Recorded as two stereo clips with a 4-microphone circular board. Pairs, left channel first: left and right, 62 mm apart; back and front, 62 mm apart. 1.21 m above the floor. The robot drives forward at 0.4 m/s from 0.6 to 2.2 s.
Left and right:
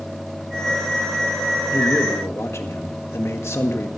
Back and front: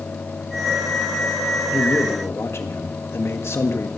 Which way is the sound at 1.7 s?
130° left.